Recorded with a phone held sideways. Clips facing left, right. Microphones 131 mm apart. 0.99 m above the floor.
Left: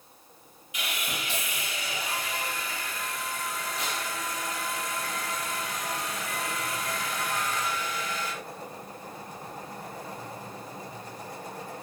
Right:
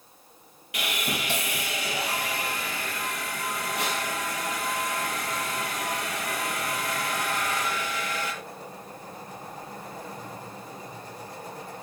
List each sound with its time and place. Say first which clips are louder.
0.7 s sawing: right 5 dB; 70° right (ahead or behind), 5.5 m